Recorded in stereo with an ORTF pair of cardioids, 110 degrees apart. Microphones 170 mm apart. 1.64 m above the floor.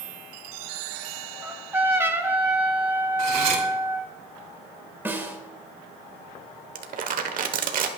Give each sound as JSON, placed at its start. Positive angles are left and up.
{"t": 1.4, "sound": "a trumpet", "azimuth_deg": -15, "distance_m": 1.9}
{"t": 3.2, "sound": "cutlery clinking", "azimuth_deg": -45, "distance_m": 3.0}
{"t": 5.0, "sound": "a snare drum", "azimuth_deg": -15, "distance_m": 1.8}
{"t": 6.8, "sound": "crumpling", "azimuth_deg": -55, "distance_m": 1.2}